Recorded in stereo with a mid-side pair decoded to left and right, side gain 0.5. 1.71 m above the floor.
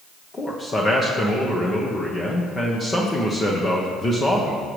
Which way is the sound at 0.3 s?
30° left.